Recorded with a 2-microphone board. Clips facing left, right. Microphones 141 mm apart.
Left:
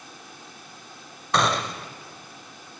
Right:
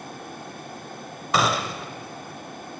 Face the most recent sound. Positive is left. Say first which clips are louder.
# even
turn(degrees=-5)  # may be behind; listen again after turning